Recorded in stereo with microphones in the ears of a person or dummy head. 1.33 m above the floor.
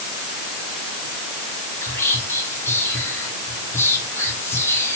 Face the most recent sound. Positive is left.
turn(degrees=15)  # may be behind; listen again after turning